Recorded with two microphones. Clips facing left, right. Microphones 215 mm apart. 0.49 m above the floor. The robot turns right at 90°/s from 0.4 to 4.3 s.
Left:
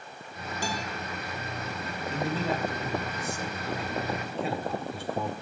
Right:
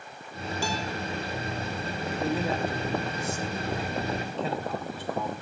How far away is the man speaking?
About 1.5 m.